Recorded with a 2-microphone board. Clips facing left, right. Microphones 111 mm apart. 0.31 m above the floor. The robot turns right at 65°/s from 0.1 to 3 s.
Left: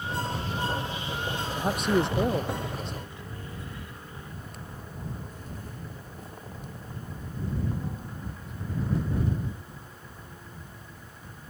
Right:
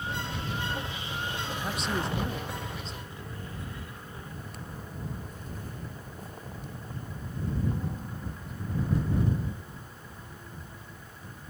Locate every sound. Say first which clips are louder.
1.6 s a man speaking: left 9 dB; 35° left; by 3.1 s 130° left